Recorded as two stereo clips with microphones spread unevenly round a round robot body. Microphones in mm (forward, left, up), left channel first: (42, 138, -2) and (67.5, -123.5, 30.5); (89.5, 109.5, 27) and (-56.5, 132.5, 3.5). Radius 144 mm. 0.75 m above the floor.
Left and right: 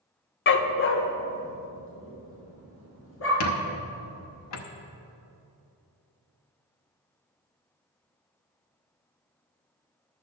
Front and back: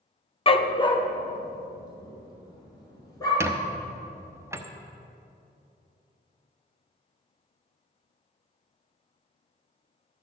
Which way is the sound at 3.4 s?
105° left.